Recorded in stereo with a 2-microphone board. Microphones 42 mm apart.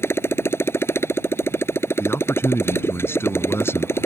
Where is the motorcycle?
85° left.